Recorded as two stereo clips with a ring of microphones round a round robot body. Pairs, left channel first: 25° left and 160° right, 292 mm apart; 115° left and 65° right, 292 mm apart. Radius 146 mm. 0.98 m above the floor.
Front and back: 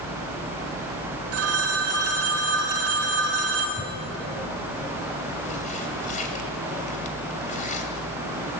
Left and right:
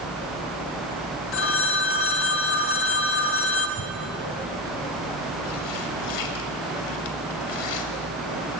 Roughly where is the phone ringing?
Behind.